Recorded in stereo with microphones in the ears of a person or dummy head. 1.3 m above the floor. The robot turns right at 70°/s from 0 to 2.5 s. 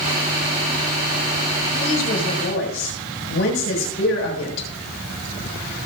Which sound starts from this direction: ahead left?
A woman speaking, at 1.8 s.